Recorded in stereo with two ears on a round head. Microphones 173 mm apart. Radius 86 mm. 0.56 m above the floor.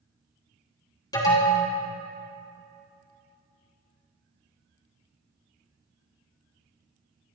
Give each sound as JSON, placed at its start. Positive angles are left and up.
{"t": 1.1, "sound": "an alarm", "side_deg": 20, "distance_m": 4.0}